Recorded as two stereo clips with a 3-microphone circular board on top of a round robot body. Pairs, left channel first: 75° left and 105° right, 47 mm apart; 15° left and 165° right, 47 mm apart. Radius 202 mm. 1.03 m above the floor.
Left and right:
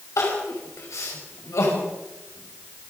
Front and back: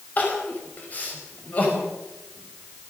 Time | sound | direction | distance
0.2 | crying | 75° left | 5 m